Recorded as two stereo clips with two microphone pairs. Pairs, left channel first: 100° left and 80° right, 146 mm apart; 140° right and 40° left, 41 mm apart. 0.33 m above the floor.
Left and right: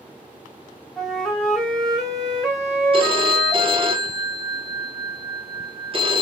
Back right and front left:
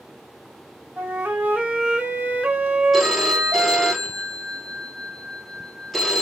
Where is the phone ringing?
50° right, 0.5 m.